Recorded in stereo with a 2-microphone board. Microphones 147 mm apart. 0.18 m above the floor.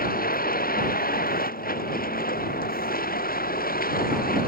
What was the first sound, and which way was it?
A vehicle, 85° left.